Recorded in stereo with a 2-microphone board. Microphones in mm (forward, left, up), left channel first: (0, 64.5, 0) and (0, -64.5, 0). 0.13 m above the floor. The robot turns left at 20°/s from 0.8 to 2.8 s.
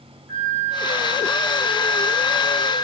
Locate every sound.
0.3 s a flute: 30° right, 3 m; by 2.8 s 70° right, 3 m